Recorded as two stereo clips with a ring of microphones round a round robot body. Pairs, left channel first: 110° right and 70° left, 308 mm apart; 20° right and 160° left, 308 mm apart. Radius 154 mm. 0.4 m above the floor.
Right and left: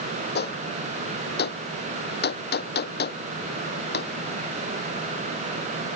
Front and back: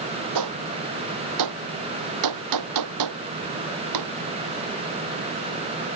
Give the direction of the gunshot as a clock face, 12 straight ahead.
6 o'clock.